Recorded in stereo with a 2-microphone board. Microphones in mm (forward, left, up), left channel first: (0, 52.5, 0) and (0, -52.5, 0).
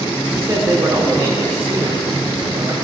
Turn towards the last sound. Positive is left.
turn(degrees=-25)  # may be behind; listen again after turning